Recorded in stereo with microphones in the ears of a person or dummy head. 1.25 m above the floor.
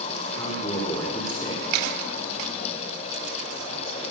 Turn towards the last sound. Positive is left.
turn(degrees=20)  # may be behind; listen again after turning